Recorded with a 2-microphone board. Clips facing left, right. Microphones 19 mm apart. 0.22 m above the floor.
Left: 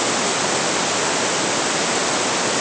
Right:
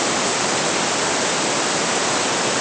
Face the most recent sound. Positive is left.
No sound to turn to.